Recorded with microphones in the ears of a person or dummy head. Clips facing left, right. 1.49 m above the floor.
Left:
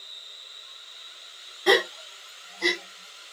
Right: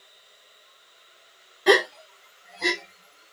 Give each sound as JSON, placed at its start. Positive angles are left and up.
{"t": 1.7, "sound": "a gasp", "side_deg": -5, "distance_m": 0.9}